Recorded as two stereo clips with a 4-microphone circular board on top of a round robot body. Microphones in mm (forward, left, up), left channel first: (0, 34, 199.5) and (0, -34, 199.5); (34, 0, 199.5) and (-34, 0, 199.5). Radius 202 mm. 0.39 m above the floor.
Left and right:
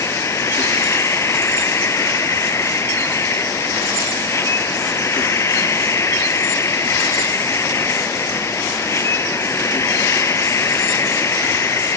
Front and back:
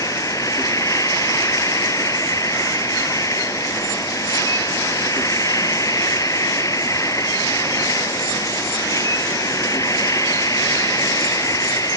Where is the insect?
40° left.